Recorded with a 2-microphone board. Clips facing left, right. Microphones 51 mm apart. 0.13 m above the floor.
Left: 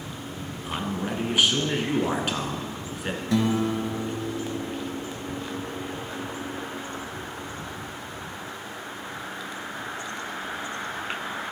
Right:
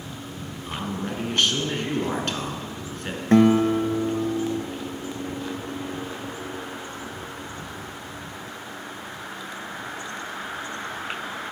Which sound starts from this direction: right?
A guitar, at 3.3 s.